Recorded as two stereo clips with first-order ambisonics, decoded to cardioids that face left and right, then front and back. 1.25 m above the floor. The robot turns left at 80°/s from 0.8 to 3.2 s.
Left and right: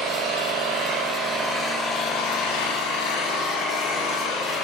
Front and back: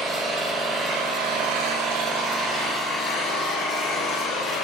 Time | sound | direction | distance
0.0 | an engine running | 115° right | 5.5 m